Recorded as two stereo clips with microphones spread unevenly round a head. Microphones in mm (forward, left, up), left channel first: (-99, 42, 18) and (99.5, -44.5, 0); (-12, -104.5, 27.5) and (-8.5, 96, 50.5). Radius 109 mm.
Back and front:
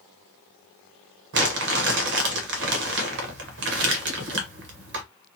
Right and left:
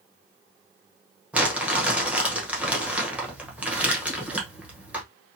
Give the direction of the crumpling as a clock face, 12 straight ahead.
12 o'clock.